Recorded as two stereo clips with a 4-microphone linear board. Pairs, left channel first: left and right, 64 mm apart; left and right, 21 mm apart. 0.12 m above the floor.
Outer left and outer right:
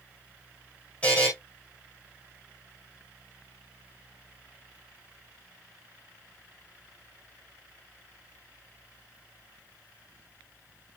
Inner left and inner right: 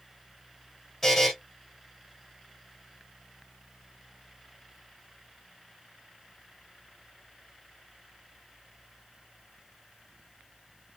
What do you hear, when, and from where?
1.0 s a buzzer: 20° left (ahead or behind), 6 m